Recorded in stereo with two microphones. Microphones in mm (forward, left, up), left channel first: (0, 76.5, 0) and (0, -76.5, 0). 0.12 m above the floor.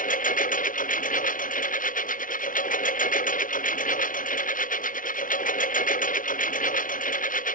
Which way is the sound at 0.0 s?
60° left (ahead or behind).